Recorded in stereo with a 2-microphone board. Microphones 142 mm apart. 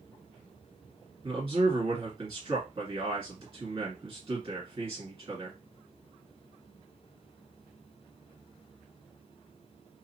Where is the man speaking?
30° right (ahead or behind), 1.8 m.